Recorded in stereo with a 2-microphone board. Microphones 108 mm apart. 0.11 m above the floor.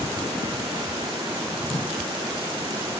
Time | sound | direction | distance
1.7 | a whoosh | 20° right (ahead or behind) | 5 m